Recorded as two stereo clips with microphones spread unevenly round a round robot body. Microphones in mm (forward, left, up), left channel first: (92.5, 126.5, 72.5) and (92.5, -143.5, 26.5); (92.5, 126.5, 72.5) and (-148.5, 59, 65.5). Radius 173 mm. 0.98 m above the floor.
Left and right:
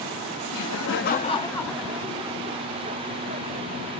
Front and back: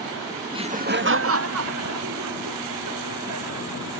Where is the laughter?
125° left; by 3.9 s 155° right.